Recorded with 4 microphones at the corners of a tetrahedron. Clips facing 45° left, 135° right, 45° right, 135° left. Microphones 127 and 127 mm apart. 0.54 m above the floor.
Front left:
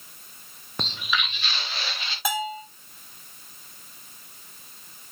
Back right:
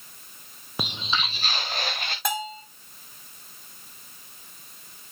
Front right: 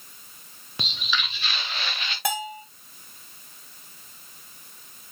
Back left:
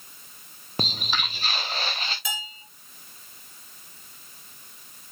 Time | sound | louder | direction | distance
0.8 | footsteps | even, back left 2 dB | 145° left | 0.6 m
2.2 | a bell | front left 2 dB, front right 10 dB | 40° right | 1.9 m